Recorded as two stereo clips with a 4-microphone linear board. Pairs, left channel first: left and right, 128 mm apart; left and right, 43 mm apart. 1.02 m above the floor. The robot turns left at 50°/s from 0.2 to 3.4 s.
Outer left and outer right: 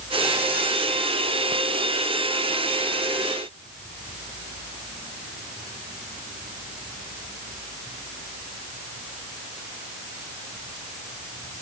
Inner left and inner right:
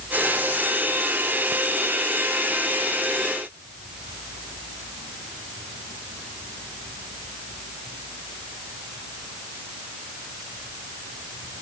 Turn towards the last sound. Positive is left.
No sound to turn to.